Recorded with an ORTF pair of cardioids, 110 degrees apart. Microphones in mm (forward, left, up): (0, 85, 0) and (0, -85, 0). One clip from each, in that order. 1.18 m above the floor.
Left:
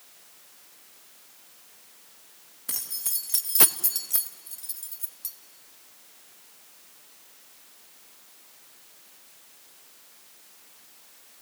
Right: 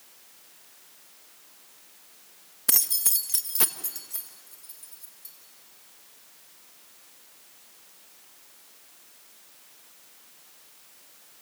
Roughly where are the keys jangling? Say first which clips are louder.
Right 7 dB; ahead right.